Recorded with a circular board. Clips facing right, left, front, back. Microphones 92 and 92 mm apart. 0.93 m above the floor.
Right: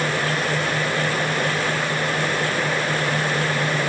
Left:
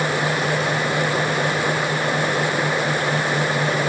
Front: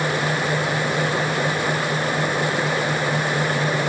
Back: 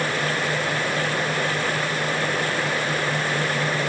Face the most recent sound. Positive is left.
No sound to turn to.